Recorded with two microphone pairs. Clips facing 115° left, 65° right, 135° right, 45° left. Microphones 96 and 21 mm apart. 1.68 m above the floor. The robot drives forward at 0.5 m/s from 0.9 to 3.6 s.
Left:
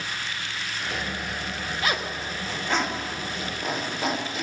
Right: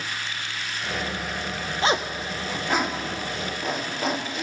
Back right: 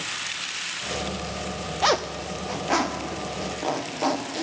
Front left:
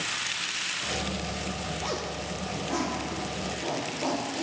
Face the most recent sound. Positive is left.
turn(degrees=-160)